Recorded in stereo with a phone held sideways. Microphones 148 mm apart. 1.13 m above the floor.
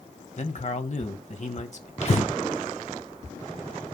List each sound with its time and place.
0.4 s a man speaking: 55° left (ahead or behind), 1.1 m
2.0 s breathing: 50° left (ahead or behind), 1.0 m